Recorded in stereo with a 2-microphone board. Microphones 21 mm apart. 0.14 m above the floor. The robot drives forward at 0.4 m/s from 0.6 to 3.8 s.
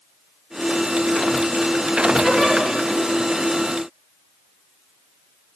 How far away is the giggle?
About 2.5 m.